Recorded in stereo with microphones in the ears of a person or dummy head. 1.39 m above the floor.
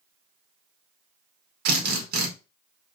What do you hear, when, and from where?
1.6 s a drill: 65° right (ahead or behind), 1.1 m